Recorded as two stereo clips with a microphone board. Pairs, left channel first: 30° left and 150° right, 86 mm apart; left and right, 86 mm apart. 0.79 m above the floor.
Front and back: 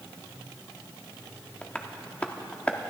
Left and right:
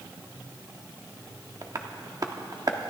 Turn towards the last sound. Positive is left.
turn(degrees=-45)